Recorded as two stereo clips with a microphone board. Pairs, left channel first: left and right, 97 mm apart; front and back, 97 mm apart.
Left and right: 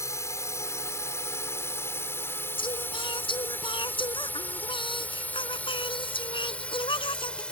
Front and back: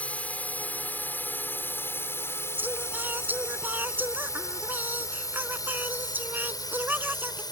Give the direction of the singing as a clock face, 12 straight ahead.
8 o'clock.